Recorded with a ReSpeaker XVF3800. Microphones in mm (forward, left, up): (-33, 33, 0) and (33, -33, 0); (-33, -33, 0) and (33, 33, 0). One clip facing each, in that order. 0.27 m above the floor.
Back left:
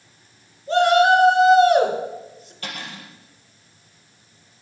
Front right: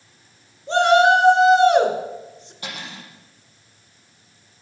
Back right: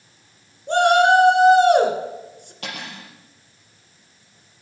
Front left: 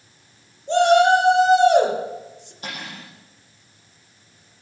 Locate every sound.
0.7 s a shout: 105° right, 3 m
2.6 s cutlery clinking: 120° right, 4.5 m